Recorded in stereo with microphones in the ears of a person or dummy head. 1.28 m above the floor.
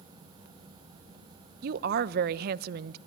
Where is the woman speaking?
55° right (ahead or behind), 0.7 m.